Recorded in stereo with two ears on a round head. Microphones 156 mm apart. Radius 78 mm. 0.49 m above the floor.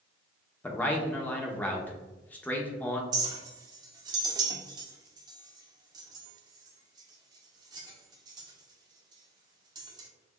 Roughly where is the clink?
Right.